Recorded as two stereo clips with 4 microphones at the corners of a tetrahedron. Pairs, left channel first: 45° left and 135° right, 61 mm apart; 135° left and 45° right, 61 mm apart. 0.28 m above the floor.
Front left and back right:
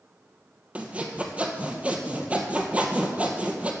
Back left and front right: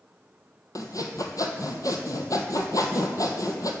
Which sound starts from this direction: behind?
Sawing, at 0.8 s.